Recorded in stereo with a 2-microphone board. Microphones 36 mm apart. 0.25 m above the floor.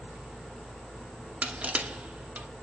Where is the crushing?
45° right (ahead or behind), 0.9 m.